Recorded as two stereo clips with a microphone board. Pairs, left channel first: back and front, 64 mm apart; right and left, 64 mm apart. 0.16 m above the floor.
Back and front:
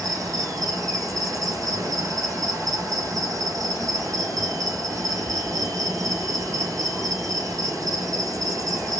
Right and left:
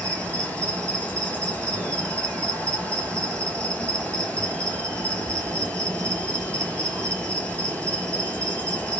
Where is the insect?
25° right, 1.2 m.